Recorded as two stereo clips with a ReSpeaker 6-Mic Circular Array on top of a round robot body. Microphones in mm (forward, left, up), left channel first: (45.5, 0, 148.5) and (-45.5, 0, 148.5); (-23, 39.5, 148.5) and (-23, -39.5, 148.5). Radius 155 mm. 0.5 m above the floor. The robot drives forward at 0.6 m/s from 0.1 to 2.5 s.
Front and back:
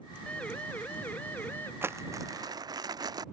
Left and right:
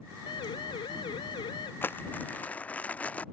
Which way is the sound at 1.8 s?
135° left.